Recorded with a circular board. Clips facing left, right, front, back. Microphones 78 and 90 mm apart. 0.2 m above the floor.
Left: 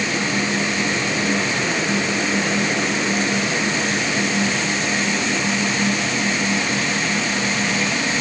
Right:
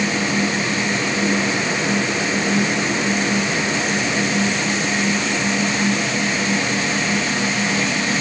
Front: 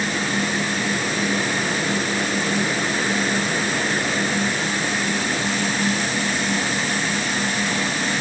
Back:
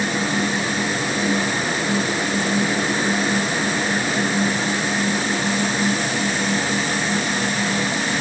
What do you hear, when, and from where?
Only background noise.